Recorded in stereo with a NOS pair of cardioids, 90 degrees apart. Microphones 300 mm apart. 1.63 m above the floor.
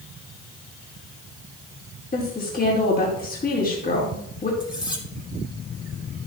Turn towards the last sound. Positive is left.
turn(degrees=15)